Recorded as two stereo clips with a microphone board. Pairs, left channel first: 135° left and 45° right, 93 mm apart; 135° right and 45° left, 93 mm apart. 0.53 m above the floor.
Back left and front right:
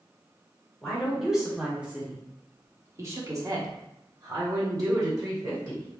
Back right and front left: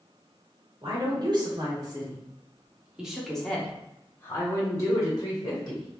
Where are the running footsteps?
No running footsteps in this recording.